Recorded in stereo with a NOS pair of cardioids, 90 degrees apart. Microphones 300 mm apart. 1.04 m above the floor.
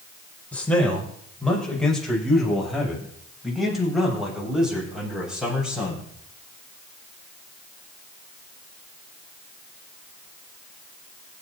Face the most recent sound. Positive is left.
turn(degrees=-5)